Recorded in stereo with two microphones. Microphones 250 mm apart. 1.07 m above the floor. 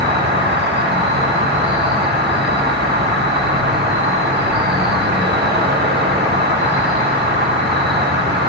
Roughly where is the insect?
Right.